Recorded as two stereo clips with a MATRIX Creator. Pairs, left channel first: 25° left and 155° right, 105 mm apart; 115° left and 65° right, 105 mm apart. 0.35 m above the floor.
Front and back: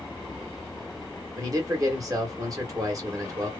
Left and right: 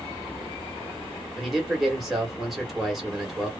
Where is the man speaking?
155° right, 1.1 m.